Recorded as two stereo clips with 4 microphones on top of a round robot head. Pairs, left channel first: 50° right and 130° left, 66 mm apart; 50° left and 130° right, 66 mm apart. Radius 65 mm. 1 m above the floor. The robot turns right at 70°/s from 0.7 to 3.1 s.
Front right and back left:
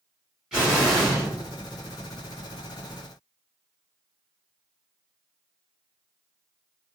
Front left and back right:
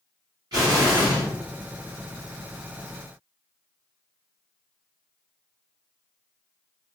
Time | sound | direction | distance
0.5 | an explosion | 150° right | 1.9 m